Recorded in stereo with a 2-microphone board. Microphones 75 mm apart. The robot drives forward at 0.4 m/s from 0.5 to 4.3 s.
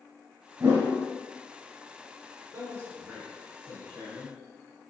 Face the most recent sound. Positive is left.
turn(degrees=-30)  # may be behind; listen again after turning